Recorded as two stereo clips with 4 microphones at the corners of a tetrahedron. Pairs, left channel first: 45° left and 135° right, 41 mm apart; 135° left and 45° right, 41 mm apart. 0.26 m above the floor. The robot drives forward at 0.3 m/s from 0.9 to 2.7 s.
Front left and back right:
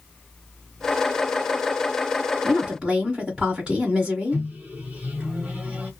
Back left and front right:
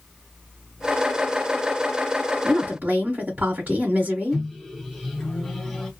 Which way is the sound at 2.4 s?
65° right.